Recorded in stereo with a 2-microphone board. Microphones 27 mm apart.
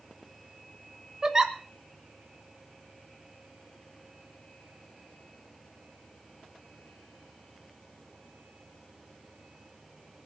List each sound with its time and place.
1.2 s a giggle: 20° right (ahead or behind), 1.6 m